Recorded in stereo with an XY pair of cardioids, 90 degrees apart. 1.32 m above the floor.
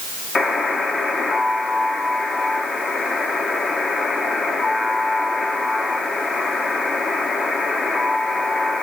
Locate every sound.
0.3 s a buzzer: 45° left, 1.4 m